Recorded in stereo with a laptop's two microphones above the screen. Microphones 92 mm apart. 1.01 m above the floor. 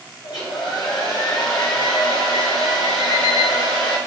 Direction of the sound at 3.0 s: 50° right (ahead or behind).